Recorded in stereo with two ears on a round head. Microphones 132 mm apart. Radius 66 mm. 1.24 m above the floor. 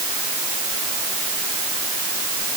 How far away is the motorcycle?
I don't hear a motorcycle.